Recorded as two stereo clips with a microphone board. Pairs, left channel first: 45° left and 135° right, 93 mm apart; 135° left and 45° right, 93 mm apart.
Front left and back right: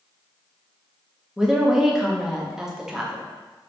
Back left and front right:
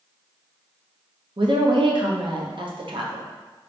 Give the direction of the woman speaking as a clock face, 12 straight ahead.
2 o'clock.